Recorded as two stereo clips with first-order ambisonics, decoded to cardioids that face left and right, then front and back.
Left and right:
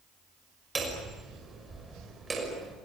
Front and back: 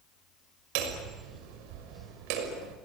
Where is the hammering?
170° right, 5.5 m.